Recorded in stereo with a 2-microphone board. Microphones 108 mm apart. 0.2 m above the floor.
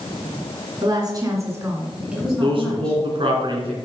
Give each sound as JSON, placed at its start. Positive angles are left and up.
{"t": 0.8, "sound": "a woman speaking", "side_deg": -40, "distance_m": 2.5}
{"t": 2.4, "sound": "a man speaking", "side_deg": -50, "distance_m": 2.5}